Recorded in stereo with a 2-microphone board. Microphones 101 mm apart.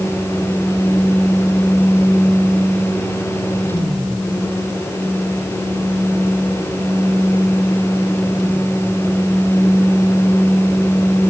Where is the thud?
No thud in this recording.